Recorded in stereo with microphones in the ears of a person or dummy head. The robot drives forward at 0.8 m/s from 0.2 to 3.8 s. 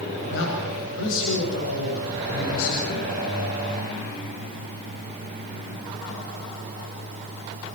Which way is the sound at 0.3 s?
70° left (ahead or behind).